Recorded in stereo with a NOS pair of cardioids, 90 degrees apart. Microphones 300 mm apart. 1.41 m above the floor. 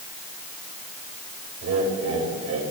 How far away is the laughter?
About 6 m.